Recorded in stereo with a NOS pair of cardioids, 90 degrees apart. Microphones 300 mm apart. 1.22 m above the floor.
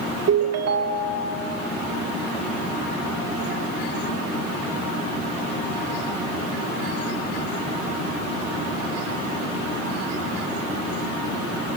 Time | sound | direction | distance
0.3 | a ringtone | 55° right | 2 m